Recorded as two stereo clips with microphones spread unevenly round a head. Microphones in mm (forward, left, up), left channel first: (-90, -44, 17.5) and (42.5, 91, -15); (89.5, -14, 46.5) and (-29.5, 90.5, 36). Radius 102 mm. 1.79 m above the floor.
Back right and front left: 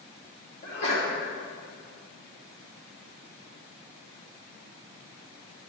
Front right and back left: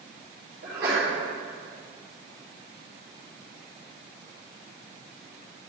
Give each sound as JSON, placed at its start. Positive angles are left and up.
{"t": 0.6, "sound": "a sneeze", "azimuth_deg": 170, "distance_m": 3.0}